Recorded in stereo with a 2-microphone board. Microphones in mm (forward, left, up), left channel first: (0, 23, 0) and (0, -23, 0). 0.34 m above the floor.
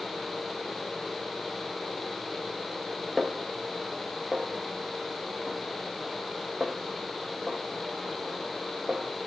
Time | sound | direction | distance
3.2 | a snare drum | 5° right (ahead or behind) | 1.1 m